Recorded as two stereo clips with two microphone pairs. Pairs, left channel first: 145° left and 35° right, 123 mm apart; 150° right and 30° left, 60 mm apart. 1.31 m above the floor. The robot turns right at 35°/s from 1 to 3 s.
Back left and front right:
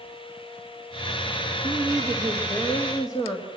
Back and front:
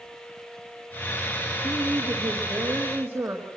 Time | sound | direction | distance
1.6 | a woman speaking | 35° left | 2 m